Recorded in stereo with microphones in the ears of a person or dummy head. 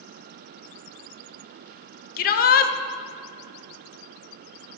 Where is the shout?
50° left (ahead or behind), 0.6 m.